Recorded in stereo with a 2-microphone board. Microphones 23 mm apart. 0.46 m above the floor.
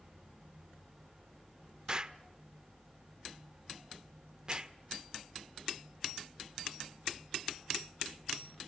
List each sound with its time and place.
1.9 s an explosion: 30° right (ahead or behind), 1.0 m